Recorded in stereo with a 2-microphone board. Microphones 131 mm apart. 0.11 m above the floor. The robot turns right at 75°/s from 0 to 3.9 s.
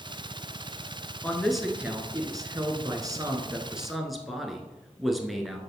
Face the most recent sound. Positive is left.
turn(degrees=0)